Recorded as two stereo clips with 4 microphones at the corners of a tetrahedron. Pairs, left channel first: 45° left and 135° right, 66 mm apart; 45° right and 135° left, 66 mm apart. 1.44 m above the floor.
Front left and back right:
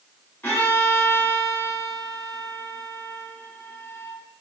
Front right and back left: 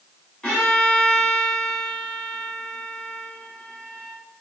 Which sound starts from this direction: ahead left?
A violin, at 0.4 s.